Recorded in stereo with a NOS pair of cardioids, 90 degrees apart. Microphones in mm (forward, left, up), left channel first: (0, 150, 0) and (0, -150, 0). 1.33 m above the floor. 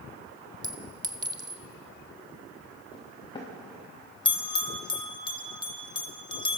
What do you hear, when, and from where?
0.6 s a clink: 15° right, 1.5 m
2.9 s footsteps: 15° left, 8.5 m
4.2 s a bell: 15° left, 1.7 m